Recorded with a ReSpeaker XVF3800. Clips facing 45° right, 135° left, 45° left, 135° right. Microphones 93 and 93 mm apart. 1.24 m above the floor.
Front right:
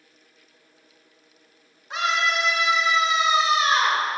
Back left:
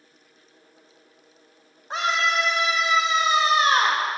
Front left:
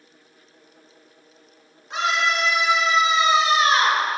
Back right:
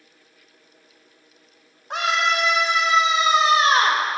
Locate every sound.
1.9 s a scream: 170° right, 3 m; by 4.0 s 170° left, 2 m